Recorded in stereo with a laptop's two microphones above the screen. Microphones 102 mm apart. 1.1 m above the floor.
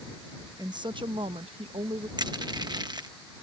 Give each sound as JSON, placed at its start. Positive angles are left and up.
{"t": 0.6, "sound": "a woman speaking", "side_deg": -40}
{"t": 2.2, "sound": "crushing", "side_deg": -45}